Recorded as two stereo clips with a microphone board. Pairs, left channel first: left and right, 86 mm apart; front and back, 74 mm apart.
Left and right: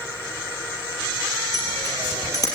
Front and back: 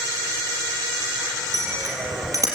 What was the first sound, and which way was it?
A bicycle bell, 140° left.